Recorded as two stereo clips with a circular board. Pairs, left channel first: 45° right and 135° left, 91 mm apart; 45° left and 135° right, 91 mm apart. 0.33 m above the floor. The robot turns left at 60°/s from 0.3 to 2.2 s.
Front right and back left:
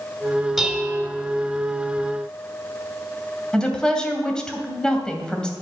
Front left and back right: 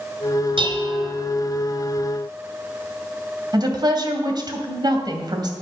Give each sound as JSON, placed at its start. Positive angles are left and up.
{"t": 0.6, "sound": "dishes clattering", "azimuth_deg": -135, "distance_m": 2.0}
{"t": 3.5, "sound": "a woman speaking", "azimuth_deg": -125, "distance_m": 2.0}